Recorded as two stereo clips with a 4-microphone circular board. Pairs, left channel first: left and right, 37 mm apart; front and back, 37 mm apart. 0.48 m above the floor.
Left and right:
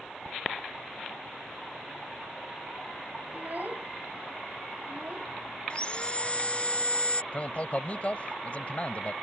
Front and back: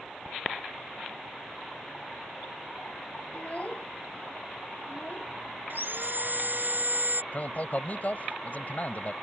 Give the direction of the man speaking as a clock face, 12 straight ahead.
11 o'clock.